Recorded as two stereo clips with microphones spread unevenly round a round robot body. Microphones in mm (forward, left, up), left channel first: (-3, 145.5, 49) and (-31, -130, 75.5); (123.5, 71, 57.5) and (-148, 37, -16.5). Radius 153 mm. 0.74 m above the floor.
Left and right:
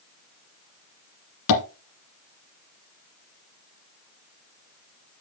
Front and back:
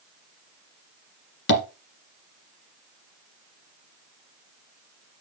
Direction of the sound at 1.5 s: 55° left.